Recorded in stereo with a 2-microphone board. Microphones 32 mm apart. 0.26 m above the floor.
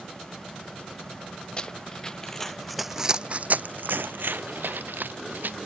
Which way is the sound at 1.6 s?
30° left (ahead or behind).